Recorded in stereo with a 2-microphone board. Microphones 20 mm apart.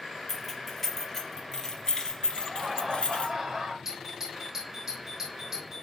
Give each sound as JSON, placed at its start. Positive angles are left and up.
{"t": 0.3, "sound": "keys jangling", "side_deg": 5, "distance_m": 3.5}
{"t": 2.4, "sound": "laughter", "side_deg": -20, "distance_m": 1.6}
{"t": 3.9, "sound": "a doorbell", "side_deg": -20, "distance_m": 5.0}